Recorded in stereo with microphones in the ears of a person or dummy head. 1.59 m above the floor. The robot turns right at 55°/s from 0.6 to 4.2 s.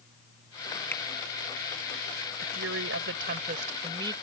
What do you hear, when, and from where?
0.9 s a finger snap: 10° left (ahead or behind); by 1.0 s 5° left (ahead or behind)
2.4 s a woman speaking: 120° right; by 4.1 s 25° right